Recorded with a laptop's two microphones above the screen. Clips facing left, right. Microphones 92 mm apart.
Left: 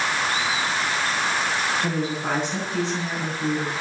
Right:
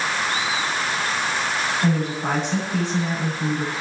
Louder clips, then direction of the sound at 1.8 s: Right 3 dB; 50° right (ahead or behind).